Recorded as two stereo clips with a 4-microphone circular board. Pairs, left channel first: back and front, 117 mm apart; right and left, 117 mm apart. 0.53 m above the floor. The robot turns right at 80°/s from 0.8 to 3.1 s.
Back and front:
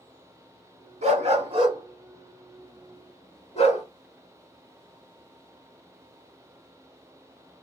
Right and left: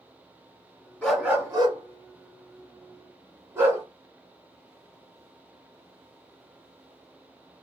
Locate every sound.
1.0 s a dog barking: 10° right, 1.3 m; by 3.8 s 160° left, 1.3 m